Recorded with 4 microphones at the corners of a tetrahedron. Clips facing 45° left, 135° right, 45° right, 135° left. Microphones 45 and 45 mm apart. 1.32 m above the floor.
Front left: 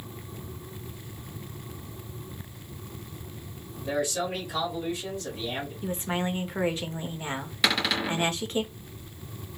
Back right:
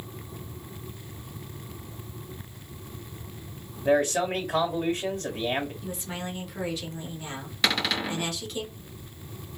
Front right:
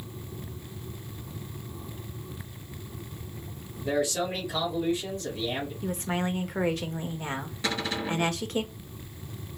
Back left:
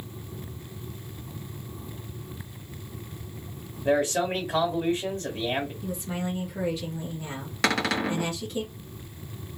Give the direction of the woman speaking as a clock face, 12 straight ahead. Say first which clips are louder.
Front left 5 dB, front right 2 dB; 12 o'clock.